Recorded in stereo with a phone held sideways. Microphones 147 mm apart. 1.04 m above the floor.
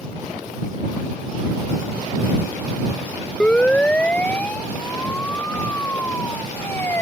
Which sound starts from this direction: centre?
A siren, at 3.4 s.